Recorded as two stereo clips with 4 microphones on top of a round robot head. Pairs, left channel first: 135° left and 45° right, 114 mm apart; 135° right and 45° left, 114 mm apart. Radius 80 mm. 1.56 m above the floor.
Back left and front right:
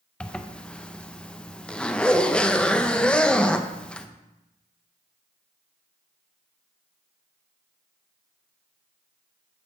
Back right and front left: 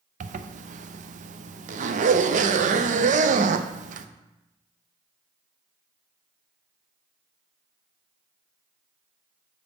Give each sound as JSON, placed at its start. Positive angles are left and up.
{"t": 0.2, "sound": "a zipper", "azimuth_deg": 55, "distance_m": 0.5}